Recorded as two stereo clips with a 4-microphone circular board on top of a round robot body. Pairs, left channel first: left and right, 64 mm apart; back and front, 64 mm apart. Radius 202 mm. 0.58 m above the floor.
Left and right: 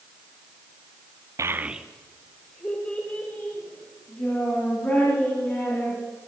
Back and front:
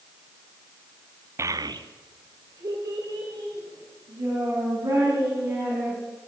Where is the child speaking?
50° right, 0.6 m; by 6.0 s 30° left, 6 m.